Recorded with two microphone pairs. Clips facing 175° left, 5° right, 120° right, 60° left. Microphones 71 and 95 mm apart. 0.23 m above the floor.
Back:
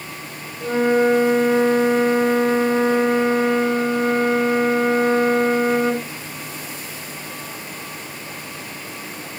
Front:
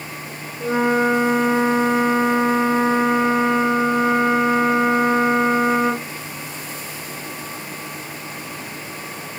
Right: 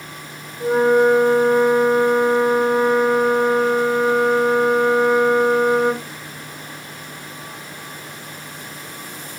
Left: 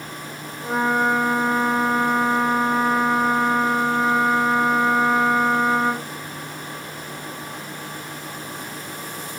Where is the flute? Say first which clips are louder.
Back 1 dB, right 7 dB; 85° right, 7.5 m.